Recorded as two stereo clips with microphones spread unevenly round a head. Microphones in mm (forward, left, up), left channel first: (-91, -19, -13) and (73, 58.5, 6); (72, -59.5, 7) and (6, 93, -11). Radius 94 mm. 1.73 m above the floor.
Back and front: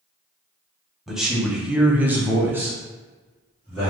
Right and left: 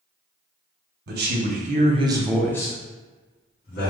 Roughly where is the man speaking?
Left.